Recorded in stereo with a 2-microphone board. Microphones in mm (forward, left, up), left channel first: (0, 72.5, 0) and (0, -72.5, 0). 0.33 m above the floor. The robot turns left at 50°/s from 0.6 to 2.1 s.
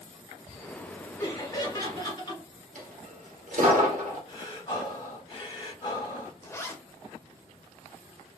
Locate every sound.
1.2 s laughter: 140° left, 1.7 m; by 2.4 s 95° left, 1.7 m
2.8 s a dropped coin: 70° right (ahead or behind), 1.4 m
4.3 s breathing: 30° left (ahead or behind), 1.2 m
6.4 s a zipper: 20° left (ahead or behind), 0.6 m